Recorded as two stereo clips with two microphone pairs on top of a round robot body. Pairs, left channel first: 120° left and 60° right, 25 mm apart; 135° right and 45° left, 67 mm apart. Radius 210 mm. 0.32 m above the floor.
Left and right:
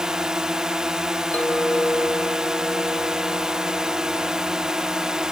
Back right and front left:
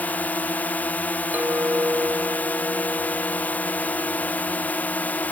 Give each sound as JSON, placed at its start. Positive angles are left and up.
{"t": 0.0, "sound": "a drone", "azimuth_deg": -90}
{"t": 1.3, "sound": "a clink", "azimuth_deg": 105}